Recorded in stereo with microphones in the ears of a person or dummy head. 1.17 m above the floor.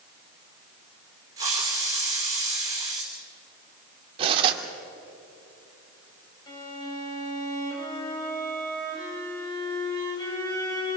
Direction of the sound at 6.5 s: 30° left (ahead or behind).